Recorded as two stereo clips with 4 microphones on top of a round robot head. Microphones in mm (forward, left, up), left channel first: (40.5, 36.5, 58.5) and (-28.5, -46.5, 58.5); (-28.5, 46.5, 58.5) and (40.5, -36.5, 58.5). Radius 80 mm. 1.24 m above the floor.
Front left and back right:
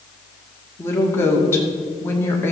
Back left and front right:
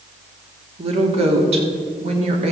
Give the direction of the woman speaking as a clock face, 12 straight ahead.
1 o'clock.